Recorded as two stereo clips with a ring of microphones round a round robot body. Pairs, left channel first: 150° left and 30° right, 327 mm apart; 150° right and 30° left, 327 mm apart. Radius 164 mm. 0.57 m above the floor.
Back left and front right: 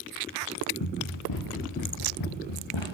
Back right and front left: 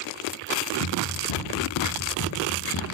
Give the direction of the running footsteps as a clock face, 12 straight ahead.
6 o'clock.